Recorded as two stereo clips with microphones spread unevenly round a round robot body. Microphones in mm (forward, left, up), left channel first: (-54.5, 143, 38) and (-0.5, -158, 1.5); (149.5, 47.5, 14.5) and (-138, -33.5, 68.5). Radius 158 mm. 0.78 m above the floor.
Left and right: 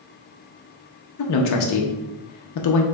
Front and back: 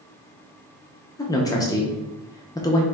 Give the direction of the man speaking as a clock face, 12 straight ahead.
9 o'clock.